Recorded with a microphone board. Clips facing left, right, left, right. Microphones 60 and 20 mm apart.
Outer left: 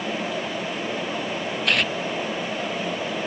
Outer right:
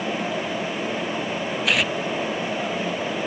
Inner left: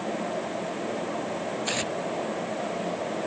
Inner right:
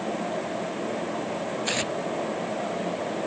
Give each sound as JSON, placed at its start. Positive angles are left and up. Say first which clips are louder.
{"t": 1.6, "sound": "tearing paper", "louder": "outer right 1 dB, inner right 2 dB", "side_deg": -5}